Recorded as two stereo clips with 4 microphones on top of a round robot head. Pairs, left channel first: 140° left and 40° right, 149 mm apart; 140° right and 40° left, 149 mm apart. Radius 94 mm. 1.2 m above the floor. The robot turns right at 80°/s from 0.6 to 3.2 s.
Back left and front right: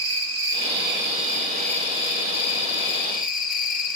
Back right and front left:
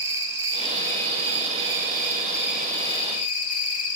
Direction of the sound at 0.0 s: 30° right.